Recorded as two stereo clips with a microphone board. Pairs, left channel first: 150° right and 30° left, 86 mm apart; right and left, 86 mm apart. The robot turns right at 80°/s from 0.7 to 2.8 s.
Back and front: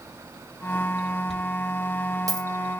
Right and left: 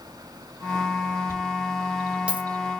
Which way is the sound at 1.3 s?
60° right.